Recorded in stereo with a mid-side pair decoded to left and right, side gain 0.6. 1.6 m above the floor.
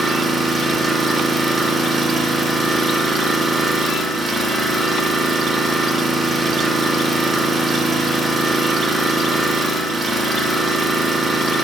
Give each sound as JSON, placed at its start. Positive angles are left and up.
{"t": 0.0, "sound": "an engine running", "azimuth_deg": -20, "distance_m": 2.5}